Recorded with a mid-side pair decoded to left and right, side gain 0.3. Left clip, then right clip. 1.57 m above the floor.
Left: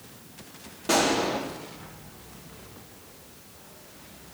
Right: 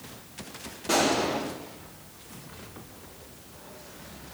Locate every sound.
0.9 s a gunshot: 45° left, 3.5 m